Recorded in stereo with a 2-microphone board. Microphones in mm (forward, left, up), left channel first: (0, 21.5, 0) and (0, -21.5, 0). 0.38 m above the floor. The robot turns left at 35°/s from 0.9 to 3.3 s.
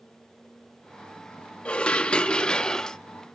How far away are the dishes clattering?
About 0.5 m.